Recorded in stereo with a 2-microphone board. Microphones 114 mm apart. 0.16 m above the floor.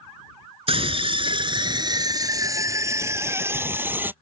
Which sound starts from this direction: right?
A scream, at 0.7 s.